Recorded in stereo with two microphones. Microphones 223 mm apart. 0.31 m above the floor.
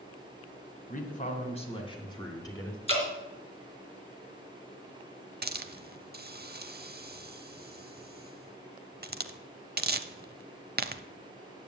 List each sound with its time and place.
0.9 s a man speaking: 40° left (ahead or behind), 1.9 m; by 2.8 s 10° left (ahead or behind), 3 m
2.9 s dripping: 25° left (ahead or behind), 3 m
5.4 s a hiss: 45° right (ahead or behind), 0.5 m